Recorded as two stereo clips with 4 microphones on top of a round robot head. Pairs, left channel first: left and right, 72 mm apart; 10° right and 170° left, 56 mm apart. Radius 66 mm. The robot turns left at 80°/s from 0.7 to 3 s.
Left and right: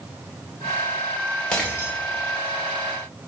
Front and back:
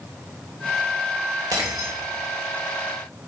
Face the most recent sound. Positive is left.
turn(degrees=50)